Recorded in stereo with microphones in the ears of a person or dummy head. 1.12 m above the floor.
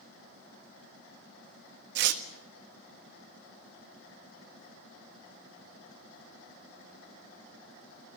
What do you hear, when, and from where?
1.9 s tearing paper: 60° right (ahead or behind), 1.4 m